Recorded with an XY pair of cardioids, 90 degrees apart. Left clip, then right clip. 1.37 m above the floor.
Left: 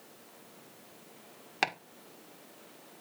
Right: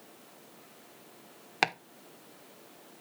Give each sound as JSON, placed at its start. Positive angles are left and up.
{"t": 1.6, "sound": "chopping", "azimuth_deg": -30, "distance_m": 1.4}